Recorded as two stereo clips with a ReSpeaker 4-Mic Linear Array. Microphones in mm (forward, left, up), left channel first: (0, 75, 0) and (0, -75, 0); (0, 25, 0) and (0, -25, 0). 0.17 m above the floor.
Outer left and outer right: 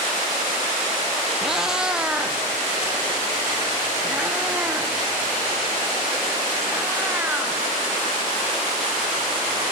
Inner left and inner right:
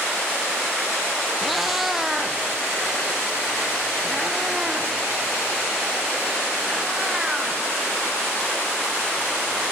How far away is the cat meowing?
About 1.1 m.